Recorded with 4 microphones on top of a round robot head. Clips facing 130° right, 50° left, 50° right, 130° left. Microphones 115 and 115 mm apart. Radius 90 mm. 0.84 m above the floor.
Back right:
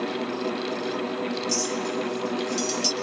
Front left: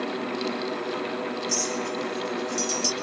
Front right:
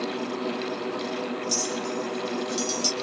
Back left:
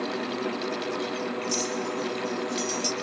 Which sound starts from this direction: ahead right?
A clink, at 1.5 s.